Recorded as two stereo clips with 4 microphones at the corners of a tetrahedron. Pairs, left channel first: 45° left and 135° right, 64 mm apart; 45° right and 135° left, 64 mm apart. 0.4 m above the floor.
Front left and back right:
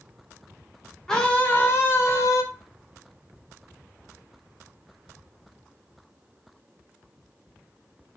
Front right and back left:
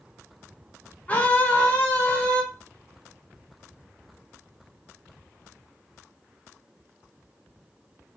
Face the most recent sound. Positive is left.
turn(degrees=25)